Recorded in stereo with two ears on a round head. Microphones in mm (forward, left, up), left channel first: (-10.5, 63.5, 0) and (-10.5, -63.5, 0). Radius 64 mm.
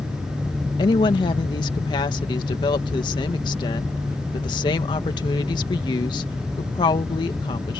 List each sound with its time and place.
0.8 s a woman speaking: 30° left (ahead or behind)